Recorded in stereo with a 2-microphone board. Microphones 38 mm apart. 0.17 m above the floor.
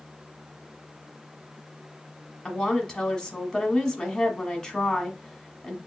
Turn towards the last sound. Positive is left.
turn(degrees=10)  # may be behind; listen again after turning